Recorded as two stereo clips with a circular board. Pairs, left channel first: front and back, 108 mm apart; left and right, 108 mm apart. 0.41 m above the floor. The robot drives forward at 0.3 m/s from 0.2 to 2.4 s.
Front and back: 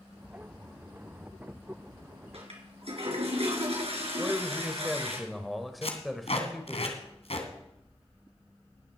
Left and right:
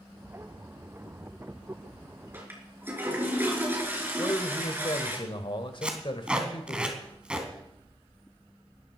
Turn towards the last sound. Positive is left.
turn(degrees=-10)